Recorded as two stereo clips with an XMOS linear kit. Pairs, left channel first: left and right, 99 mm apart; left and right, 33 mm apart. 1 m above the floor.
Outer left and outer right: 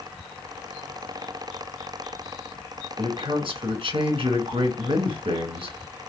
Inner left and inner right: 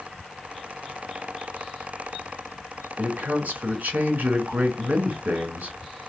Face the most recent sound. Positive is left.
turn(degrees=-60)  # may be behind; listen again after turning